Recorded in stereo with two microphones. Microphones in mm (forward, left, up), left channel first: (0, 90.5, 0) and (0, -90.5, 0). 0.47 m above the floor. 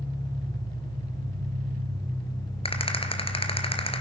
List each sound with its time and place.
0.0 s an engine running: 35° right (ahead or behind), 9 m
2.6 s a rattle: 30° left (ahead or behind), 2 m